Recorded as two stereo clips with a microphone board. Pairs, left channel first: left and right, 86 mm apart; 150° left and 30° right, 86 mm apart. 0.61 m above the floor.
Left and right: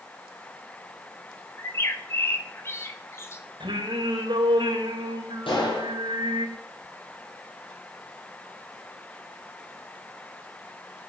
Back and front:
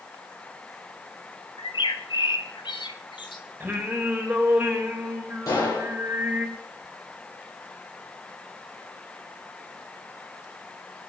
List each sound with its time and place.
1.6 s a bird: 150° left, 2.5 m
3.6 s singing: 95° right, 3.5 m
5.5 s a gunshot: 105° left, 10 m